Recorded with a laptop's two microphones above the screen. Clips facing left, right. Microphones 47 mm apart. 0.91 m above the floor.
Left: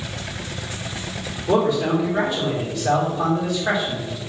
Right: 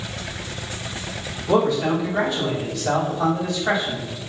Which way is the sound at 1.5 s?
15° left (ahead or behind).